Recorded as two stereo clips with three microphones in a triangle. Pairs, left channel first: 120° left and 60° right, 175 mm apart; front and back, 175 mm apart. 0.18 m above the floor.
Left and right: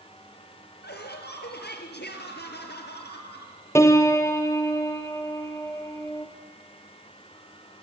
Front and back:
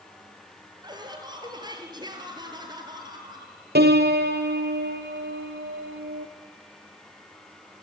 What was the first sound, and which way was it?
Laughter, 115° left.